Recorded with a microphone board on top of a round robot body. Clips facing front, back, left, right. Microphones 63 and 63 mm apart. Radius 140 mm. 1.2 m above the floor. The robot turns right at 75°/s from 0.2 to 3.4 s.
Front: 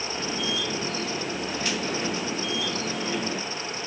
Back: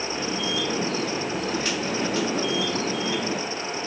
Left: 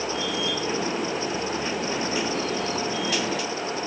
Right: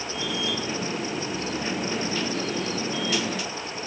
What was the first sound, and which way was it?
Only background noise.